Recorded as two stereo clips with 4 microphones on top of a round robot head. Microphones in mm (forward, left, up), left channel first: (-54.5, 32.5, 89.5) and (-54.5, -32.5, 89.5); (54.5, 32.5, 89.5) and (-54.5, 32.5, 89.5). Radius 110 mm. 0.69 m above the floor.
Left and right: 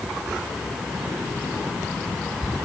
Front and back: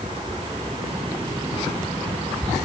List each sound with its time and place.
Only background noise.